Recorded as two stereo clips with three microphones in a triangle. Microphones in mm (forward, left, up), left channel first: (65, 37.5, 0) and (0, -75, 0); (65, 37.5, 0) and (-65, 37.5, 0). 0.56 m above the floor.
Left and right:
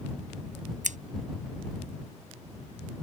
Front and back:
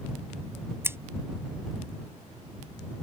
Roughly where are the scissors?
Right.